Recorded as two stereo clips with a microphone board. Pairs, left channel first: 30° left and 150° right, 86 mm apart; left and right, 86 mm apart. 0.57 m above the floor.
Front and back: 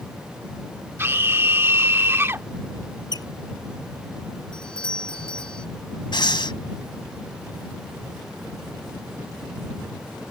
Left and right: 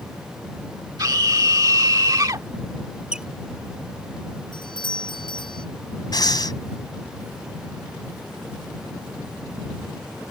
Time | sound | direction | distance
1.0 | a scream | 100° right | ?
3.1 | a squeak | 10° right | ?
4.5 | a doorbell | 110° left | ?
6.1 | breathing | 55° left | ?